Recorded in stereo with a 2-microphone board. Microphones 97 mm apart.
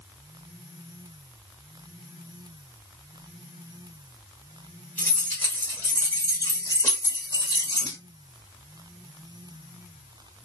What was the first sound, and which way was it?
Keys jangling, 15° left (ahead or behind).